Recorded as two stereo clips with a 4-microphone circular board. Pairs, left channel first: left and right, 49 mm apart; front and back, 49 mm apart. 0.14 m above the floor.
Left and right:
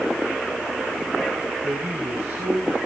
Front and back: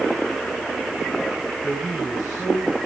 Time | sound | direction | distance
1.6 | a man speaking | 95° right | 4 m